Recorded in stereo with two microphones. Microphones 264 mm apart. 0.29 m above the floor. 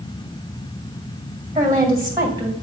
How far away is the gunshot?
I don't hear a gunshot.